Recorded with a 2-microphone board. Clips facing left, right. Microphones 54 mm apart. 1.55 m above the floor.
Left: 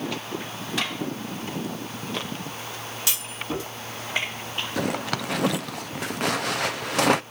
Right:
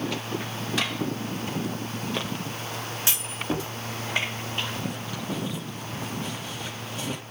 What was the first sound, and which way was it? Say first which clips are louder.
A clunk: right 1 dB; 25° right (ahead or behind).